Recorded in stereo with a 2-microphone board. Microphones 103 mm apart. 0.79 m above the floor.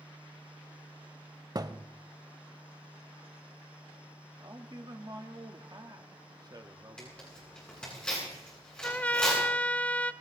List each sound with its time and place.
1.6 s a thud: 40° right (ahead or behind), 0.6 m
4.4 s a man speaking: 40° right (ahead or behind), 1.6 m
7.0 s tearing paper: 10° left (ahead or behind), 10 m
8.8 s a trumpet: 15° left (ahead or behind), 0.6 m